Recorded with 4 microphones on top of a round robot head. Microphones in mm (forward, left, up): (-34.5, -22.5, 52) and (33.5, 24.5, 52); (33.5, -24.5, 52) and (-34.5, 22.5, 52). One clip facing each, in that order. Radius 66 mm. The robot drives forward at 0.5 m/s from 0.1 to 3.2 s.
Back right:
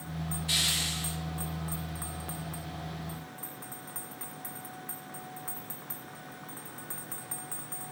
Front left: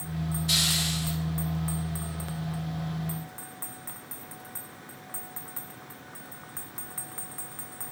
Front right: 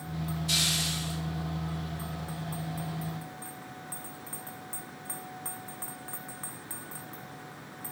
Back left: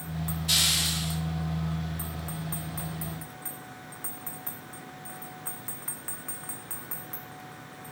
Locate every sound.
0.5 s a hiss: 105° left, 3.5 m; by 1.2 s 110° left, 3.5 m